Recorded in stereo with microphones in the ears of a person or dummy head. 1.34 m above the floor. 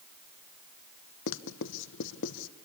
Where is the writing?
70° left (ahead or behind), 1.0 m.